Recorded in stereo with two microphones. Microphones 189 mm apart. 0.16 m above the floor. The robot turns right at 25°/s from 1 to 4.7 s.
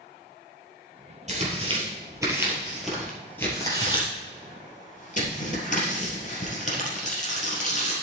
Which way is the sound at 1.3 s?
40° right (ahead or behind).